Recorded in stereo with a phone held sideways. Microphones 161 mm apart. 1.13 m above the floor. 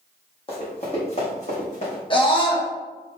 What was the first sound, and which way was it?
Running footsteps, 35° left (ahead or behind).